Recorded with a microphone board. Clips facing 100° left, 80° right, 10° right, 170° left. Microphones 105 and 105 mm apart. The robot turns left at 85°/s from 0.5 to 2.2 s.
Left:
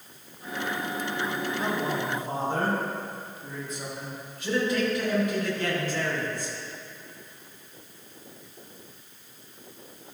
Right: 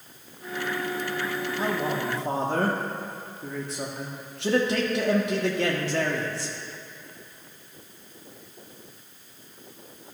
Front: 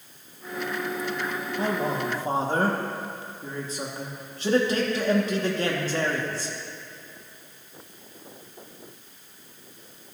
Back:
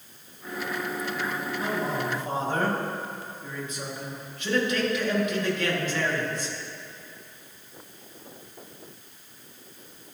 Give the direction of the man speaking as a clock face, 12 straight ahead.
1 o'clock.